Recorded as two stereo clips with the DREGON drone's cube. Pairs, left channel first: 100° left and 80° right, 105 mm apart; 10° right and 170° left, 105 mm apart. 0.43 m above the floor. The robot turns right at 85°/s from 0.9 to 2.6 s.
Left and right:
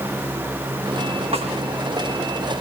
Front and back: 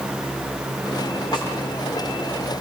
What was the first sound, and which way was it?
A snare drum, 60° right.